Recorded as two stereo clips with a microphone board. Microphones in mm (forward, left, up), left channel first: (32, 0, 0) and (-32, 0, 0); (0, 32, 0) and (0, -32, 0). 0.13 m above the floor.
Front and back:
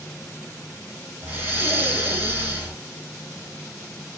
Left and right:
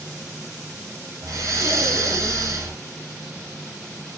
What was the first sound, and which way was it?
Breathing, 130° right.